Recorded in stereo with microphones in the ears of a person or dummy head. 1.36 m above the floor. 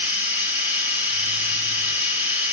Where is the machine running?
10° right (ahead or behind), 3 m.